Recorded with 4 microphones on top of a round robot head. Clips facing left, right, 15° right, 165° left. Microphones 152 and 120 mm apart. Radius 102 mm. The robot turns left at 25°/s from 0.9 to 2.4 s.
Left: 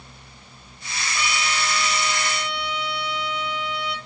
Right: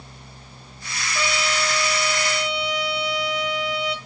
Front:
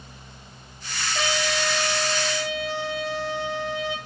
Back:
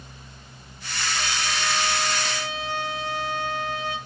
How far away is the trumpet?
About 2 m.